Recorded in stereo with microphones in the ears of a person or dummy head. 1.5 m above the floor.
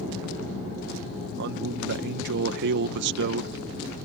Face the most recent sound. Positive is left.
turn(degrees=-65)  # may be behind; listen again after turning